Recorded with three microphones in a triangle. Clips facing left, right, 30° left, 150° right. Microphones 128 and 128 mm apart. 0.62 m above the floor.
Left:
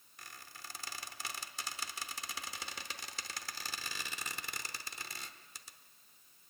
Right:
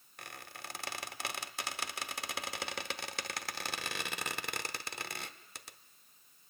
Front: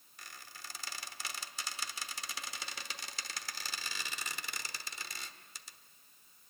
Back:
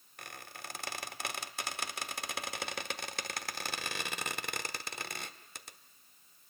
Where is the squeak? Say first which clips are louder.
Right 5 dB, back 5 dB; 115° right, 0.7 m.